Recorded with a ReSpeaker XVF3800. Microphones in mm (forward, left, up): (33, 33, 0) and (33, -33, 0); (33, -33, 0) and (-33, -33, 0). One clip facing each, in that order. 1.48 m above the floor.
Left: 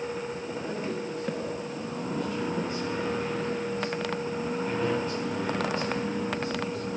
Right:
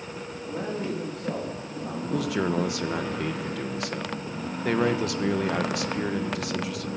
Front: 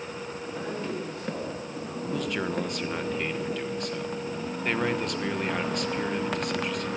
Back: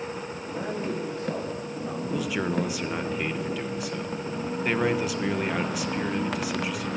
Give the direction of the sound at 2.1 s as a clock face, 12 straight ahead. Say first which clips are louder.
Right 5 dB, back 2 dB; 3 o'clock.